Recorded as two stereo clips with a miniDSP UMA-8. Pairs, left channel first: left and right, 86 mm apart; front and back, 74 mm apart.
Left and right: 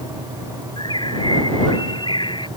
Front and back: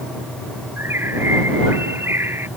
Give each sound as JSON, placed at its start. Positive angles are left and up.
{"t": 0.8, "sound": "a bird", "azimuth_deg": 120}